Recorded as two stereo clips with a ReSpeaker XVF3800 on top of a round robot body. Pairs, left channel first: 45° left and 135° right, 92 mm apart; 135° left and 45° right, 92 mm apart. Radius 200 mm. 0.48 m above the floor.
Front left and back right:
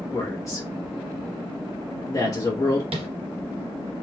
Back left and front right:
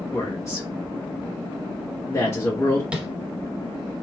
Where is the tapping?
125° right, 0.9 m.